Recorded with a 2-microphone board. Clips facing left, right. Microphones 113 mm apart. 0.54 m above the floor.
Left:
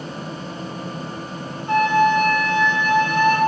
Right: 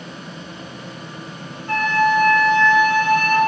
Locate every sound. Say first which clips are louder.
1.7 s a flute: left 2 dB; 20° left (ahead or behind), 1.1 m